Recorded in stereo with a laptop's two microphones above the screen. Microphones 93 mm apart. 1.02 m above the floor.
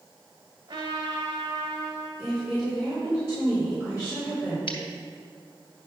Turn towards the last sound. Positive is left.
turn(degrees=70)  # may be behind; listen again after turning